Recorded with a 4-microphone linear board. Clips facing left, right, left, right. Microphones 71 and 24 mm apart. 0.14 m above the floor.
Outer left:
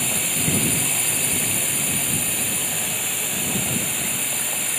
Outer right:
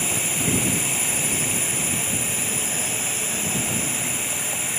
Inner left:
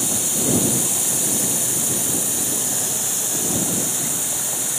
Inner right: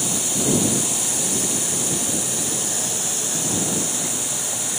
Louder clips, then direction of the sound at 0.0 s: Even, even; 5° right (ahead or behind).